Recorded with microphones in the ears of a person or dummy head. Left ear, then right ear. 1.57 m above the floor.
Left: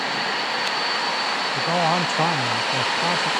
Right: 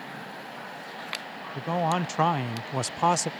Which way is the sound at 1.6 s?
20° left (ahead or behind).